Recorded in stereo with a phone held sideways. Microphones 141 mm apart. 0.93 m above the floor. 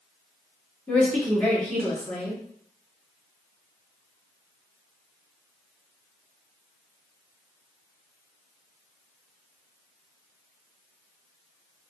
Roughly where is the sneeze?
No sneeze in this recording.